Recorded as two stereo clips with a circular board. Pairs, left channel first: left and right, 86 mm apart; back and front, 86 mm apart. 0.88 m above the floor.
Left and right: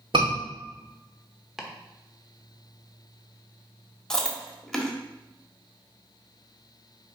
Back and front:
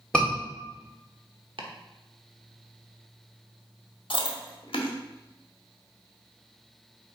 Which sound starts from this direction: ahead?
Chopping, at 1.6 s.